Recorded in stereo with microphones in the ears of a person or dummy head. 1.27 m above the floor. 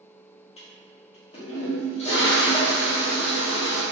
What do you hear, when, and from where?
0.6 s a toilet flushing: 25° left (ahead or behind), 0.7 m